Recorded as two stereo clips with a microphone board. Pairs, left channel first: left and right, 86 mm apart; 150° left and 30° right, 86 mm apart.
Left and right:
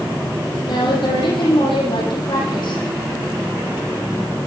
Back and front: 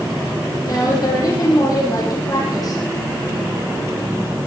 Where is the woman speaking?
110° left, 7.5 m.